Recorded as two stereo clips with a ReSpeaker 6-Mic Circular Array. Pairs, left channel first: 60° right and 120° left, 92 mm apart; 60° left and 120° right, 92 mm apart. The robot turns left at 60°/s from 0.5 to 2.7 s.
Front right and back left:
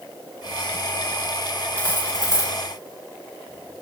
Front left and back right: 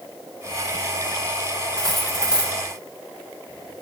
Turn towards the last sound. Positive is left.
turn(degrees=-70)